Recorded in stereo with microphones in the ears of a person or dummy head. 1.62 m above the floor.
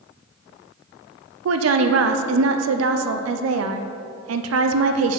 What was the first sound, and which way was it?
A woman speaking, 90° right.